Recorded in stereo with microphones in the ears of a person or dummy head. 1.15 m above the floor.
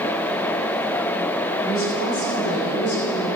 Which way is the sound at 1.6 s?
55° left (ahead or behind).